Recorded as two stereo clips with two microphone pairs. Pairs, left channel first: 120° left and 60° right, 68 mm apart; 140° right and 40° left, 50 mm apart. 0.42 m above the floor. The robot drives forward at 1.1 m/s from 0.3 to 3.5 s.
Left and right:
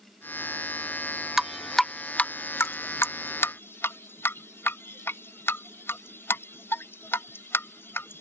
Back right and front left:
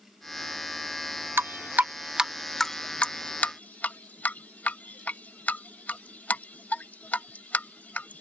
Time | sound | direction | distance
1.4 | dripping | 25° left | ?